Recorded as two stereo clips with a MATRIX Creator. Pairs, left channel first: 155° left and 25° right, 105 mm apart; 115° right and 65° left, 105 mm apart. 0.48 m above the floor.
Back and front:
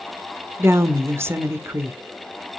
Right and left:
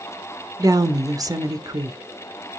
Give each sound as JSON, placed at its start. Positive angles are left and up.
{"t": 0.6, "sound": "a woman speaking", "azimuth_deg": 35, "distance_m": 1.1}